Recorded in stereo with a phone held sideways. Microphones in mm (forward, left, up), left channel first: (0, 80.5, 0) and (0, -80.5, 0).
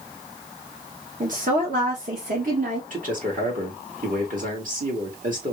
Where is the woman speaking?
55° right (ahead or behind), 1.3 m; by 2.8 s 60° right (ahead or behind), 2 m.